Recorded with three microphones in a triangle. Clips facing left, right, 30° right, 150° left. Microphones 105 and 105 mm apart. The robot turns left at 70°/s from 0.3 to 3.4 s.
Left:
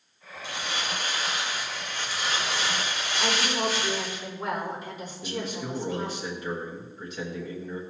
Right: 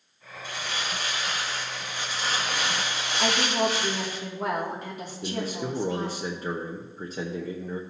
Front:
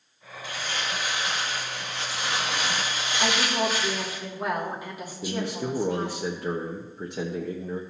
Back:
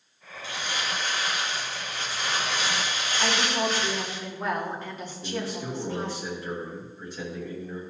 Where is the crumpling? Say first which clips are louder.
Left 1 dB, even; 90° left, 2 m; by 4.2 s 115° right, 2 m.